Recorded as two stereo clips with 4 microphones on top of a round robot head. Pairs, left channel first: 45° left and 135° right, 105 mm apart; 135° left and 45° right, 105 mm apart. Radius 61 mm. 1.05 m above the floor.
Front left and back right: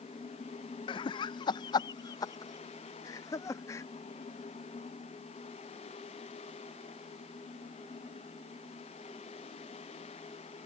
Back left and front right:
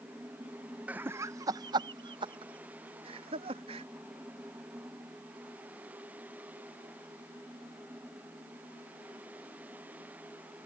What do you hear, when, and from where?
0.9 s laughter: 30° left; by 3.9 s 15° right